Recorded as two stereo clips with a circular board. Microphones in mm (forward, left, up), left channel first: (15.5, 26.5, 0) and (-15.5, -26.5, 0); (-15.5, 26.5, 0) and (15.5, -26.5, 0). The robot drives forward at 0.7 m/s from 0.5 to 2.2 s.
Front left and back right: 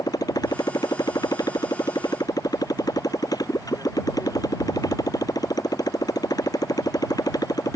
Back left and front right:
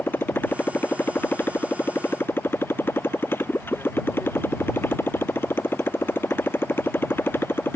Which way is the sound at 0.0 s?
65° left.